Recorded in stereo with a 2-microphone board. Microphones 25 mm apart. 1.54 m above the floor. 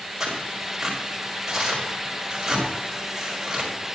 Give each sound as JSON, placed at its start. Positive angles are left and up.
{"t": 0.2, "sound": "tearing paper", "side_deg": -10, "distance_m": 4.5}